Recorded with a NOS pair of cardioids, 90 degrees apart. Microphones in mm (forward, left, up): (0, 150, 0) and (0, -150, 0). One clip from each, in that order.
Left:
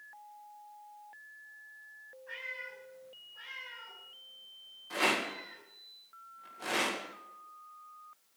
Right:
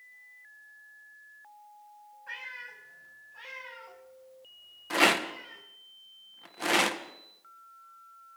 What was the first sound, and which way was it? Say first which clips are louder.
A cat meowing: right 1 dB; 65° right.